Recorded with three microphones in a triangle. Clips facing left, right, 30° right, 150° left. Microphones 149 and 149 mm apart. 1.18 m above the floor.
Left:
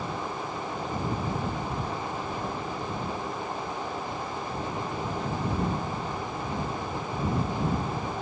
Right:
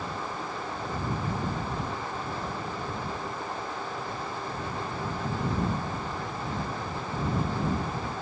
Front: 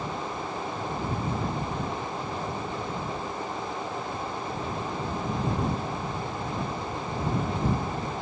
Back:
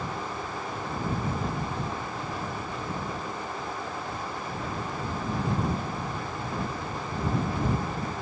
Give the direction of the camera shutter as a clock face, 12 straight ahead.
No camera shutter in this recording.